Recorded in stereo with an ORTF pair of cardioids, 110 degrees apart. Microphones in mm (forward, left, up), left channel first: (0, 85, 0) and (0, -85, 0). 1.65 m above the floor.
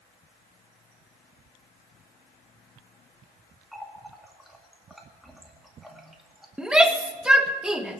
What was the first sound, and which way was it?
A running tap, straight ahead.